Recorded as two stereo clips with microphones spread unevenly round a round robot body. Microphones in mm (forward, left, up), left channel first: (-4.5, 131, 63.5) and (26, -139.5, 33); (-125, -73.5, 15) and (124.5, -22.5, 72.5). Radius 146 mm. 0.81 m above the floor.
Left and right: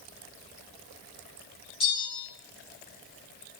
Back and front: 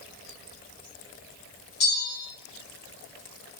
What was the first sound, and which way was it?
A bell, 170° left.